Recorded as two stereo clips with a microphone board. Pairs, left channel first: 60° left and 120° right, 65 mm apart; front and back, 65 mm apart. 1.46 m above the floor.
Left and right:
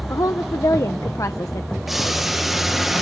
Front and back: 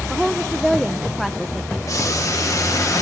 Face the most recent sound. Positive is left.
turn(degrees=-35)